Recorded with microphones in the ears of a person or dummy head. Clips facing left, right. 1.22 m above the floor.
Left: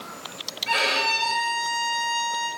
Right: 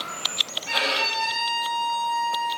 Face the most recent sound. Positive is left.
turn(degrees=30)  # may be behind; listen again after turning